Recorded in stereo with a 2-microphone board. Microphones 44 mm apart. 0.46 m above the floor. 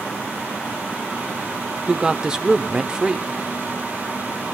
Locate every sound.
1.9 s a woman speaking: 15° right (ahead or behind), 1.0 m